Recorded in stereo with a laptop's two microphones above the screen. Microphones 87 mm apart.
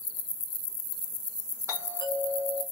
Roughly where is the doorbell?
Right.